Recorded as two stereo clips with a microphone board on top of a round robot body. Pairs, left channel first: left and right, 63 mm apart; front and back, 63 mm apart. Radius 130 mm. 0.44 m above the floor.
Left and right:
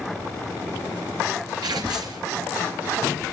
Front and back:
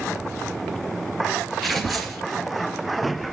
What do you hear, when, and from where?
1.6 s tearing paper: 90° right, 2.5 m